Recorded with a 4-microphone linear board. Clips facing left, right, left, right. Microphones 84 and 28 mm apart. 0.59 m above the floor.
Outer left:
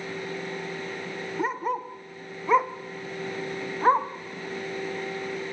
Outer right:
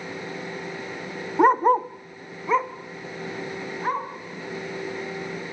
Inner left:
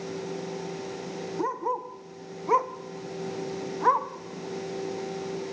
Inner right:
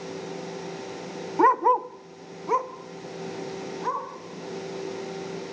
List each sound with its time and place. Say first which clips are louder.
1.4 s a dog barking: outer right 12 dB, inner right 11 dB; 65° right (ahead or behind), 0.6 m; by 4.1 s 35° left (ahead or behind), 1.8 m